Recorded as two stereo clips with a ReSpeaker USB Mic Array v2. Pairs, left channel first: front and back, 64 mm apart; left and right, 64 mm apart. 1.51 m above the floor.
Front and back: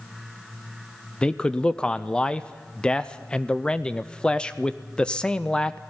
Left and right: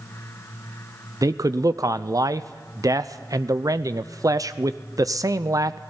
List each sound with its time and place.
1.2 s a man speaking: 75° right, 0.6 m